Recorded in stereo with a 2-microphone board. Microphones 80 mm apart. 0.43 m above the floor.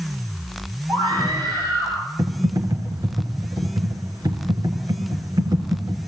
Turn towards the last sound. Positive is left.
turn(degrees=-65)  # may be behind; listen again after turning